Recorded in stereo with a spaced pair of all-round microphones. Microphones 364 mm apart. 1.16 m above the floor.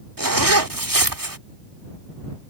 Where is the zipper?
70° right (ahead or behind).